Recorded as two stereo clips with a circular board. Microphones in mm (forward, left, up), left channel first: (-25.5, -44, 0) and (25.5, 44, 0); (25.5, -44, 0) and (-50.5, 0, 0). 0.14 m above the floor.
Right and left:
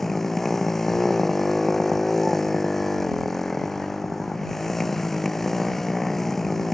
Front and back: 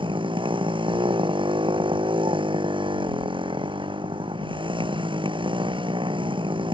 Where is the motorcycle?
155° left.